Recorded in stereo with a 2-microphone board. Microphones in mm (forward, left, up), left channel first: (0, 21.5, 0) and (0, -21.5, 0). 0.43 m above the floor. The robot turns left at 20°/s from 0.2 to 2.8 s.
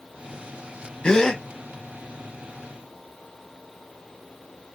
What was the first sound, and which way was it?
A gasp, 20° left (ahead or behind).